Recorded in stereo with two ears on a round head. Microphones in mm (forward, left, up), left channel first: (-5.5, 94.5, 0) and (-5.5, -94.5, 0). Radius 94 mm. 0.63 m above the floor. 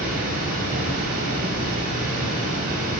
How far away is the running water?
About 3 m.